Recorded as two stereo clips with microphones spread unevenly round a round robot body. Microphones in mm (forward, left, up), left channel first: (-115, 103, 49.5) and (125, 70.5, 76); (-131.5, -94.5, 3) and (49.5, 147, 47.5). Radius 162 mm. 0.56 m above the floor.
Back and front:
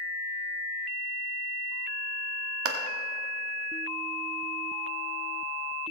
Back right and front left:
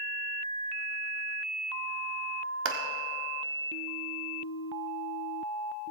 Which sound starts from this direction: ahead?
A clap, at 2.6 s.